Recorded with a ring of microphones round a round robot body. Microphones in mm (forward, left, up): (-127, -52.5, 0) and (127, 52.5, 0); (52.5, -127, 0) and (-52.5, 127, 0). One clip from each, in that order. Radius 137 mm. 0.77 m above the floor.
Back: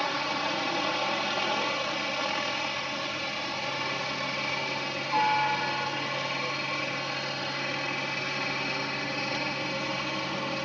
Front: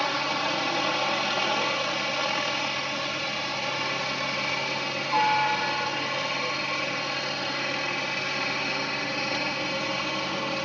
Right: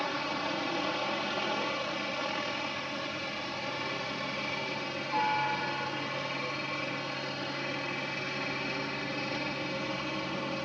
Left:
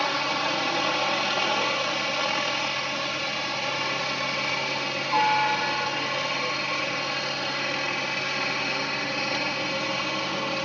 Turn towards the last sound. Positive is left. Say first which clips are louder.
# front 3 dB, left 8 dB
turn(degrees=95)